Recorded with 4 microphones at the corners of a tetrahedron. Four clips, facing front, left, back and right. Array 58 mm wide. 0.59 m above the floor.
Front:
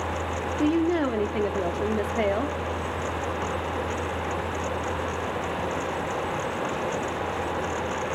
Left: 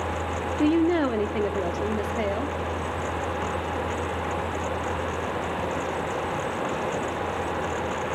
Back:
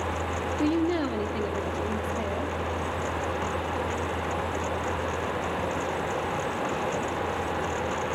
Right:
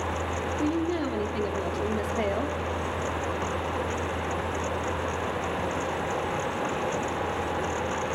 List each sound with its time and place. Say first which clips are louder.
0.6 s a woman speaking: left 8 dB, front 3 dB; 85° left, 0.9 m; by 2.6 s 10° right, 1.1 m